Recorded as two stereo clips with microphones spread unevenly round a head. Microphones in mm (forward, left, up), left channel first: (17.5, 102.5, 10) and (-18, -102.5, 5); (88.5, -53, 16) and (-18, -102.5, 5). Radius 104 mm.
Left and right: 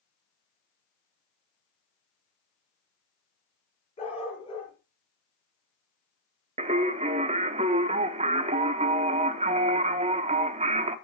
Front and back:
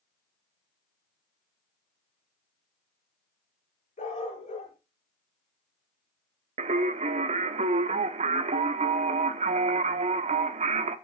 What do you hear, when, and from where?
4.0 s a dog barking: 15° left, 4.5 m
6.6 s singing: 155° right, 0.7 m